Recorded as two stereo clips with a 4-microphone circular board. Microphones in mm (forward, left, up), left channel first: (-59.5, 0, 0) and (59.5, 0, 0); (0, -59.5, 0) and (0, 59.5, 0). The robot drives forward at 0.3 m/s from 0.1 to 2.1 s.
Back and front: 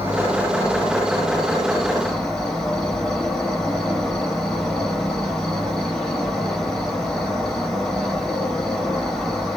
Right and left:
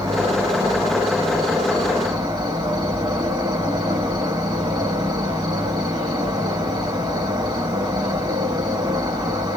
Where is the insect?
60° left, 1.5 m; by 9.6 s 100° left, 1.5 m.